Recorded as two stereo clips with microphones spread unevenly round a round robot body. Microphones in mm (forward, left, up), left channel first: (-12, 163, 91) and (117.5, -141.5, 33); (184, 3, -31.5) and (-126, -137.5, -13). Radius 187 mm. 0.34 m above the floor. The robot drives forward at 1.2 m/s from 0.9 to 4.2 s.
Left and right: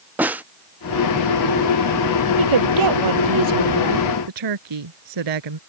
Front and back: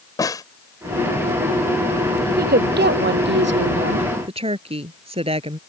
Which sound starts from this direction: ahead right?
A snare drum, at 0.2 s.